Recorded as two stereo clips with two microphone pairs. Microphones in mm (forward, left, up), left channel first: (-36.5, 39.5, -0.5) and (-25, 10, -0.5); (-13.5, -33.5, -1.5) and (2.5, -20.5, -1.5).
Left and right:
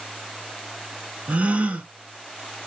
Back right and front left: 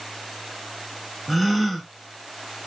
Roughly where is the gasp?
Ahead right.